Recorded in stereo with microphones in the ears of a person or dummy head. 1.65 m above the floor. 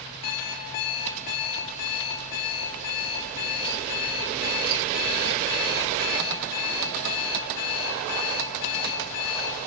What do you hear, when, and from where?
0.2 s an alarm clock: 50° left (ahead or behind), 2.0 m